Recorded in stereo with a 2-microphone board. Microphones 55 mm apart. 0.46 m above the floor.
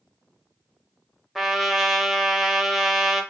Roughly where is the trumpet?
Centre.